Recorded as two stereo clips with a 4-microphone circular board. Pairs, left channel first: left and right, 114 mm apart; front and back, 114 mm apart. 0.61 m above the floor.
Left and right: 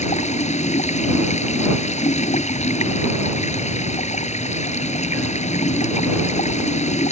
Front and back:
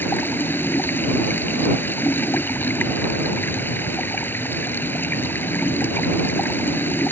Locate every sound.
0.0 s running water: 75° left